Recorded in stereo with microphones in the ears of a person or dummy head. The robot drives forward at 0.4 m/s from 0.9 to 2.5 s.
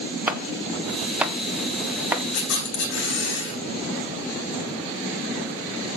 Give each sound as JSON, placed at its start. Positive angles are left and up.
{"t": 0.3, "sound": "chopping", "side_deg": -15, "distance_m": 1.4}
{"t": 2.3, "sound": "a camera shutter", "side_deg": 60, "distance_m": 5.0}